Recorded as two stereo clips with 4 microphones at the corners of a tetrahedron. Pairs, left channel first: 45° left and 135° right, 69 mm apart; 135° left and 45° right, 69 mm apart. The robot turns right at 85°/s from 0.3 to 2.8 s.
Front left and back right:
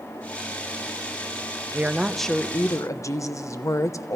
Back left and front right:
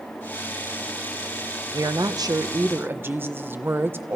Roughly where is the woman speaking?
Right.